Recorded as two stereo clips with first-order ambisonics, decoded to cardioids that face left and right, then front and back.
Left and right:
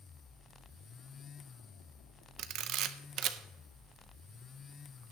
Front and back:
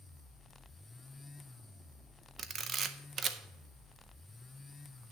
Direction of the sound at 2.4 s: 120° right.